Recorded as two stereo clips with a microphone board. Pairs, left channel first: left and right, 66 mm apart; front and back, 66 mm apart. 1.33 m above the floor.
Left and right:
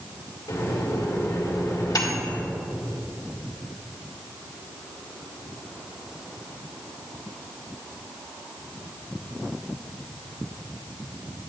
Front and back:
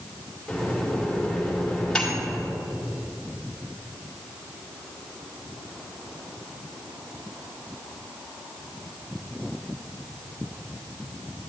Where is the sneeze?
I don't hear a sneeze.